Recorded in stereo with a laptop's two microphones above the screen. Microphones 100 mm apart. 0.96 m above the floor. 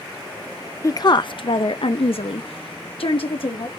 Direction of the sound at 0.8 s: 35° left (ahead or behind).